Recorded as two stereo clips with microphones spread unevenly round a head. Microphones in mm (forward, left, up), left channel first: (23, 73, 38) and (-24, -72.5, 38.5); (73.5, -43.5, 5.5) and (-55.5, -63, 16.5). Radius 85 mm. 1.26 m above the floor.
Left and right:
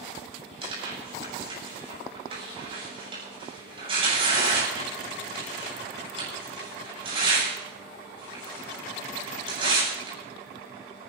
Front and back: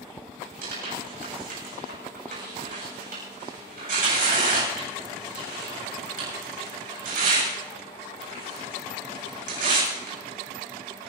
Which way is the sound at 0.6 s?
165° right.